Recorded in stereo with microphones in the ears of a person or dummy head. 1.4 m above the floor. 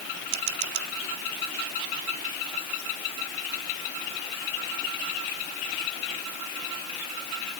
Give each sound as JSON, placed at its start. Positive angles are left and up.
{"t": 0.3, "sound": "a camera shutter", "side_deg": -60}